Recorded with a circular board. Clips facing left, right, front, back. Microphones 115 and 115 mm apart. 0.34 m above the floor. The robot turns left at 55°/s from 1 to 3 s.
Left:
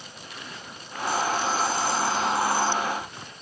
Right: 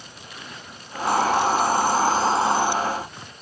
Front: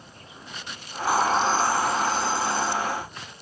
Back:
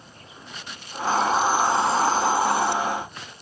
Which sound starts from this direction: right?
A hiss, at 1.1 s.